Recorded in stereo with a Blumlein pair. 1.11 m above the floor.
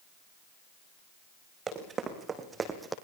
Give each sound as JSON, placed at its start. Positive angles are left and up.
{"t": 1.7, "sound": "running footsteps", "azimuth_deg": -20, "distance_m": 4.0}